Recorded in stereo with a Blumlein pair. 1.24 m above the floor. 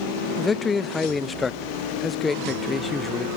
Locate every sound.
0.4 s a man speaking: 10° left